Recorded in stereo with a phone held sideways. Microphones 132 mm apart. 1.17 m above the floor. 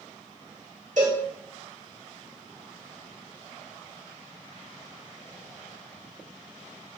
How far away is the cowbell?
About 1.4 m.